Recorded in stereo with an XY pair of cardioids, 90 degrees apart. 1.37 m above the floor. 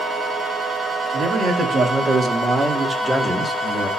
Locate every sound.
1.1 s a man speaking: 65° right, 2.5 m; by 3.9 s 20° left, 1.3 m